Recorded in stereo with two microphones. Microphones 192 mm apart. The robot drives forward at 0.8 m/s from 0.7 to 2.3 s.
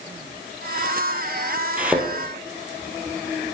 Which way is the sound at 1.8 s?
10° right (ahead or behind).